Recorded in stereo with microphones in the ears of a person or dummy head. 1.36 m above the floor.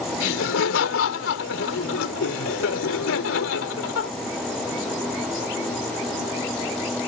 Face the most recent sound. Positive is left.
turn(degrees=80)